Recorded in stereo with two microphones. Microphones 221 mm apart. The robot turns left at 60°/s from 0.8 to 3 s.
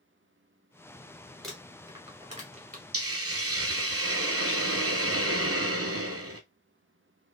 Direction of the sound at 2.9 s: 70° right (ahead or behind).